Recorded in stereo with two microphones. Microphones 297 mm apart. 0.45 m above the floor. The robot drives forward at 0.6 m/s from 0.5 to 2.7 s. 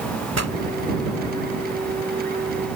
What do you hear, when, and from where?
0.3 s a pop: 60° right (ahead or behind)